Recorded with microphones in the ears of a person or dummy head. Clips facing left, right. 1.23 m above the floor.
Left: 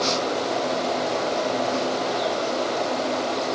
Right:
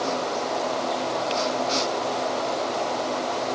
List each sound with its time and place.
Only background noise.